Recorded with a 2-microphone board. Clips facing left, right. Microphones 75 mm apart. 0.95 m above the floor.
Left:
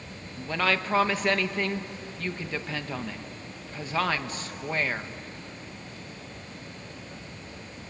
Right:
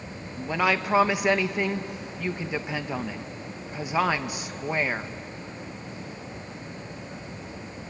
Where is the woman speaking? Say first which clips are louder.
Right 2 dB; 15° right (ahead or behind), 0.8 m.